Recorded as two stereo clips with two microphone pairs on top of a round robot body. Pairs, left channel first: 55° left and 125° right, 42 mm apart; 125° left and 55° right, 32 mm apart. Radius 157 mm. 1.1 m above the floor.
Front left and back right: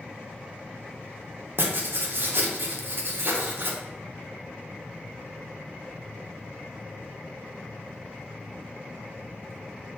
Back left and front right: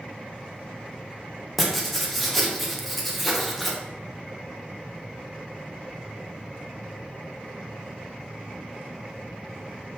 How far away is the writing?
About 0.8 m.